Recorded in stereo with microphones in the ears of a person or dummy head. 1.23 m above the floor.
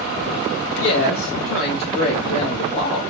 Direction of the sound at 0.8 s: 80° left.